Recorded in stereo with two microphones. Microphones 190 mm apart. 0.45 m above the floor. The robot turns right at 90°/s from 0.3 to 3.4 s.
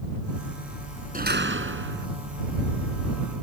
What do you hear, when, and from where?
1.1 s a door slam: 135° right; by 2.1 s 50° right